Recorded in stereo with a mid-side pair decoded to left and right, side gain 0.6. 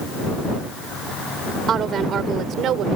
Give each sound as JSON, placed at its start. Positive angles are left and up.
{"t": 1.7, "sound": "a woman speaking", "azimuth_deg": -45}